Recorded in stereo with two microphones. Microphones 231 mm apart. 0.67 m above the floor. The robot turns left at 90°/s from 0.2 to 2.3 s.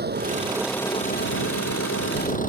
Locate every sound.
0.0 s an engine running: 135° right; by 2.5 s 35° left